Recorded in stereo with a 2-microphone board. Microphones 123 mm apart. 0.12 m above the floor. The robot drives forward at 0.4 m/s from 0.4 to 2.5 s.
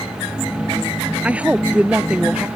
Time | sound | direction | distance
1.2 | a woman speaking | 10° right (ahead or behind) | ?